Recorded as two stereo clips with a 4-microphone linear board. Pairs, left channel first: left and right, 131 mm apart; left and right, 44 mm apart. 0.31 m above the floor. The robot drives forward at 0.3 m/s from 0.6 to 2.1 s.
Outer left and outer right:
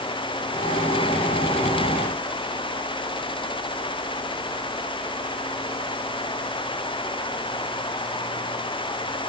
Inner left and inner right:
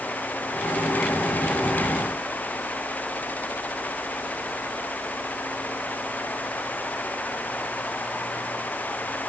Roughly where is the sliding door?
No sliding door in this recording.